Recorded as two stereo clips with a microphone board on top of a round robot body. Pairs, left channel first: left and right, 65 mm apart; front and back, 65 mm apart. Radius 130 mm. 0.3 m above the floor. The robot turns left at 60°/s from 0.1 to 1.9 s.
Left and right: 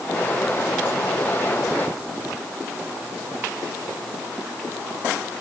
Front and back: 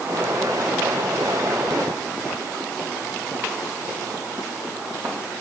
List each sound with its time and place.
Only background noise.